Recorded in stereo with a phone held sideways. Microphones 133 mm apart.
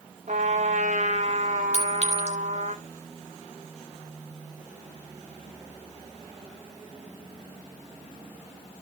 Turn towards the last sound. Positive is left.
turn(degrees=-55)  # may be behind; listen again after turning